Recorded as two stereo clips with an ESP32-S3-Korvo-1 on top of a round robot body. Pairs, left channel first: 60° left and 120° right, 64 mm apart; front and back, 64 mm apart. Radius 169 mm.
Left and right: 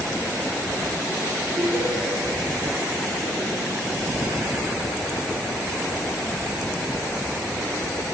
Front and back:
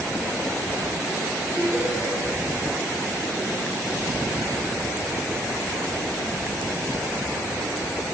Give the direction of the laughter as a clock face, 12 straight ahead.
3 o'clock.